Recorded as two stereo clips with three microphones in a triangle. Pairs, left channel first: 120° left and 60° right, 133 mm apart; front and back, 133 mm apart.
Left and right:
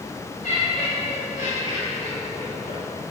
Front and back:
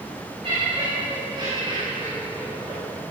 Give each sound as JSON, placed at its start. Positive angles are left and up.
{"t": 0.4, "sound": "laughter", "azimuth_deg": 135, "distance_m": 6.5}